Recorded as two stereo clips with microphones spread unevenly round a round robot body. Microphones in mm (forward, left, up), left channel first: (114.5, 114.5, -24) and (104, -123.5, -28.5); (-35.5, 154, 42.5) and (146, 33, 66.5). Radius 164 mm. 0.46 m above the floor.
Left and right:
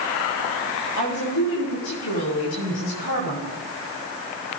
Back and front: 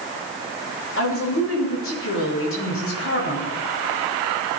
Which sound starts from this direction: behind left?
A woman speaking, at 1.0 s.